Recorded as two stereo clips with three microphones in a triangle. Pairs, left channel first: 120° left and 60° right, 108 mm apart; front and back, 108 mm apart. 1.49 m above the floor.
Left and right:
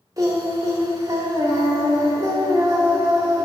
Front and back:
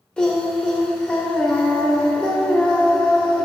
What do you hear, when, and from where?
0.2 s singing: 75° right, 1.1 m